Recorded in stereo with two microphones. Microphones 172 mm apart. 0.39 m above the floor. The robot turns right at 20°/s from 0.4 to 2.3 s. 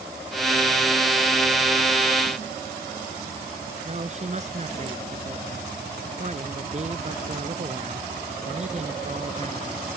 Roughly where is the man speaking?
Right.